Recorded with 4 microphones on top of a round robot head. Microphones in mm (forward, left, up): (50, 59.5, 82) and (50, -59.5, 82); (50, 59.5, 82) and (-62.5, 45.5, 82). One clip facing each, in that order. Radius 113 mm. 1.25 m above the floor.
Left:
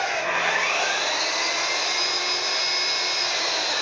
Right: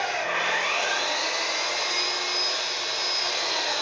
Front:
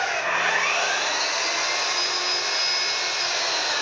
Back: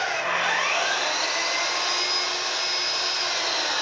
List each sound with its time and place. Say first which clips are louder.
0.0 s an engine running: left 2 dB, front 1 dB; 120° left, 4 m